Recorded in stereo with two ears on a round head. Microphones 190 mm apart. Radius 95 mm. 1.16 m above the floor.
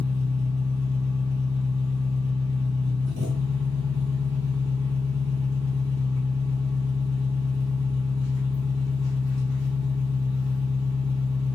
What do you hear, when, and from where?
0.0 s an engine running: 80° right, 1.5 m